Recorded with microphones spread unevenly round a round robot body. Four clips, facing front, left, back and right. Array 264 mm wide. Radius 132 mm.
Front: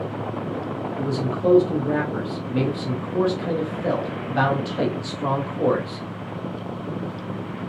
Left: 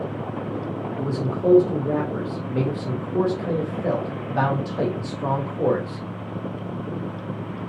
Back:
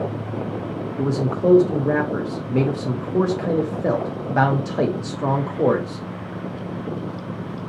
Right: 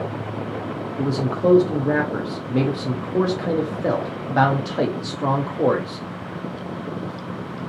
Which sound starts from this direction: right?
A man speaking, at 1.0 s.